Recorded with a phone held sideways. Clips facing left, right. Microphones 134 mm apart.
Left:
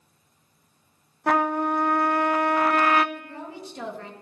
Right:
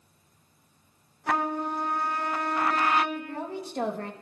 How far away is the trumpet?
About 0.6 m.